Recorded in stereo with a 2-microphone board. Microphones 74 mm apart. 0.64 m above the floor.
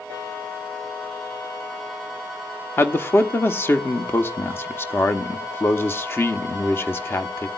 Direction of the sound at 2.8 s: 30° left (ahead or behind).